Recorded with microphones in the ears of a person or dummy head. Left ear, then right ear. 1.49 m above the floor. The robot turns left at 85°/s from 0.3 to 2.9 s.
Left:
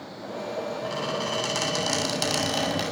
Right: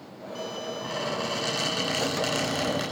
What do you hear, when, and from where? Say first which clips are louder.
0.8 s a squeak: right 1 dB; 160° right, 7.5 m; by 2.8 s 30° left, 7.5 m